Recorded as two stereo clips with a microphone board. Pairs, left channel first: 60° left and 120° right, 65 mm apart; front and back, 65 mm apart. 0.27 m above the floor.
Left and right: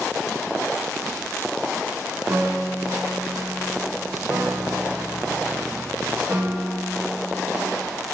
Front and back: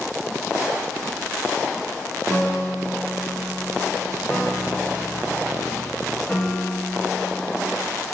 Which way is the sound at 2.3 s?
70° right.